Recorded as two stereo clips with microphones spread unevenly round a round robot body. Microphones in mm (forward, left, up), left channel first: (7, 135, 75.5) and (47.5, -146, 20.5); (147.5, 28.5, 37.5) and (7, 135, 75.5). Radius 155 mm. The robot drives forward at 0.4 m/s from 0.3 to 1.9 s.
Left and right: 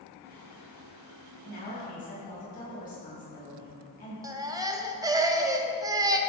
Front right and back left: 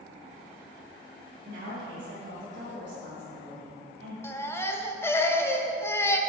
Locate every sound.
1.4 s a woman speaking: 165° left, 2.5 m
4.2 s a baby crying: 55° right, 0.9 m